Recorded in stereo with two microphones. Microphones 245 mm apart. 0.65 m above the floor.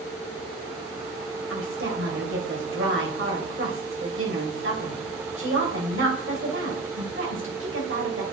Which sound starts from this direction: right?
A woman speaking, at 1.5 s.